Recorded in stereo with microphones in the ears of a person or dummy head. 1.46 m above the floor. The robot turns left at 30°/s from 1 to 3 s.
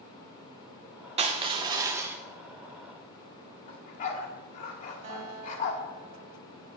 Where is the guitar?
50° right (ahead or behind), 2.5 m.